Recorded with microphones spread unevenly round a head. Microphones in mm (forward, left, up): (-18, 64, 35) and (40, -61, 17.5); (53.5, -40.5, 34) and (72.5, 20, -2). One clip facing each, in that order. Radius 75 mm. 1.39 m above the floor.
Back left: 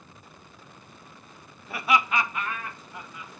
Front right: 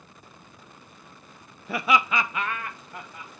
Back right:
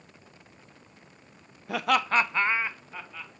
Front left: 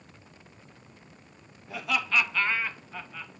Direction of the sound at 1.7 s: 95° right.